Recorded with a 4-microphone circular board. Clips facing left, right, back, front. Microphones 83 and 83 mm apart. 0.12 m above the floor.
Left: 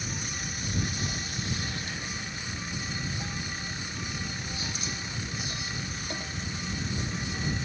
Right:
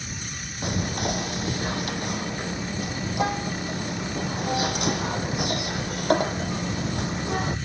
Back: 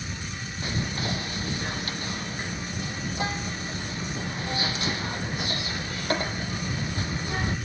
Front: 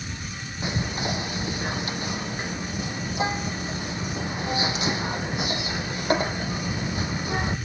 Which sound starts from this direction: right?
Whispering, at 0.6 s.